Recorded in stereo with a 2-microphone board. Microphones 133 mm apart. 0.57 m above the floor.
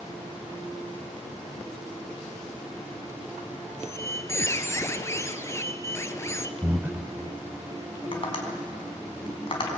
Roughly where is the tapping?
Left.